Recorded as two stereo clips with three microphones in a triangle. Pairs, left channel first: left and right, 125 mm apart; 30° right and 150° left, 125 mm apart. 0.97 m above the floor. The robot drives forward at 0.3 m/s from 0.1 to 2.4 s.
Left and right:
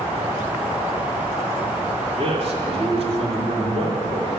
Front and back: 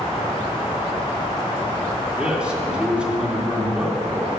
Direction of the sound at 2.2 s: 125° right.